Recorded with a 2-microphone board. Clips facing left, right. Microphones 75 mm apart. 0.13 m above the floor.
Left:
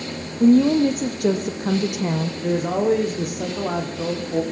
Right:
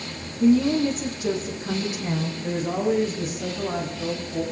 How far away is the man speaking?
About 9.5 m.